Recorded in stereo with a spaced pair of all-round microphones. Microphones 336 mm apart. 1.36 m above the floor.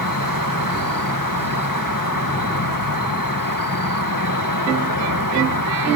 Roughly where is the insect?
Left.